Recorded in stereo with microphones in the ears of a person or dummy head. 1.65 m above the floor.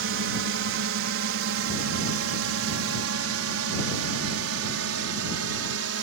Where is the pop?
No pop in this recording.